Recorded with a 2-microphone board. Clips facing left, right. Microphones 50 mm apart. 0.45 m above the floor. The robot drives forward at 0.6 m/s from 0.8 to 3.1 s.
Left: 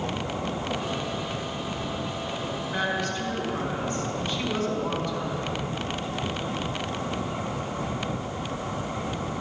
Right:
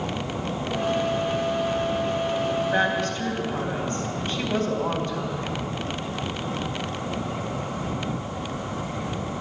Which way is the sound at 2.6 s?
45° right (ahead or behind).